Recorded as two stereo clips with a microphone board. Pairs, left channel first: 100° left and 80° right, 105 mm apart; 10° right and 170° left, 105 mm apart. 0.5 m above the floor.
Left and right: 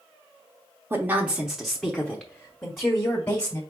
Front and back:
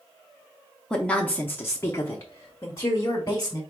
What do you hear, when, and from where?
0.9 s a woman speaking: 80° right, 0.8 m; by 3.6 s 45° left, 1.6 m